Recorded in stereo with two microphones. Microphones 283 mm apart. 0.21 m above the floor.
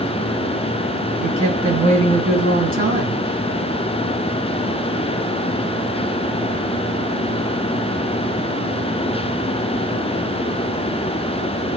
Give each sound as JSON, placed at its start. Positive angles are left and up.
{"t": 1.2, "sound": "a woman speaking", "side_deg": -35, "distance_m": 2.0}